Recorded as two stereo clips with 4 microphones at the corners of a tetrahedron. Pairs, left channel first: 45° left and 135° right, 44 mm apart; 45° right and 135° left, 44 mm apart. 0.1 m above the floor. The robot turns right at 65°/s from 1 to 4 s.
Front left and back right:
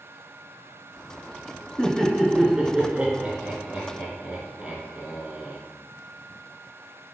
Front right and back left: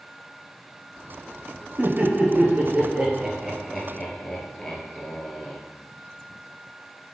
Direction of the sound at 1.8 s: 105° left.